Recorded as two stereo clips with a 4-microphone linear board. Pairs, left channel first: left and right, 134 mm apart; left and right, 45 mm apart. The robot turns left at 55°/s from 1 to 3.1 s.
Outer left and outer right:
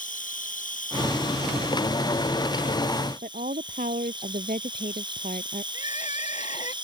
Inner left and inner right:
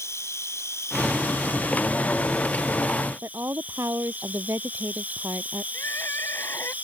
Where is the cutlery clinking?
No cutlery clinking in this recording.